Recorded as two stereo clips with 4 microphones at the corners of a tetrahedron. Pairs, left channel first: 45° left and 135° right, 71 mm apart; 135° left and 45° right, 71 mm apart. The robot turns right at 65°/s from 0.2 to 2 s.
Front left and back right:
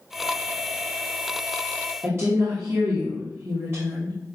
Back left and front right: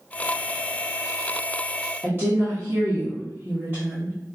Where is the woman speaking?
90° right, 1.2 m.